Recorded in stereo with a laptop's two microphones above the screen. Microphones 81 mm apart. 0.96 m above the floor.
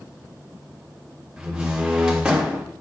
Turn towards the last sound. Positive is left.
turn(degrees=-10)  # may be behind; listen again after turning